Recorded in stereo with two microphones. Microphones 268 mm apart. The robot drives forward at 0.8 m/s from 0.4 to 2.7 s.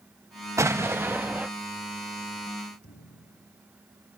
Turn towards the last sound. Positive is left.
turn(degrees=60)  # may be behind; listen again after turning